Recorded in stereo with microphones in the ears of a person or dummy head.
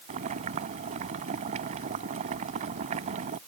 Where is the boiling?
45° right (ahead or behind).